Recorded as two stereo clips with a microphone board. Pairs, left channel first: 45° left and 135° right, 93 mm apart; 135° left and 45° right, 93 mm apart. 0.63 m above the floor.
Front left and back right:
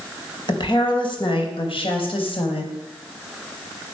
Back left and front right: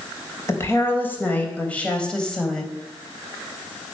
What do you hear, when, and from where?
0.5 s a woman speaking: 75° left, 4 m; by 2.7 s 50° left, 4 m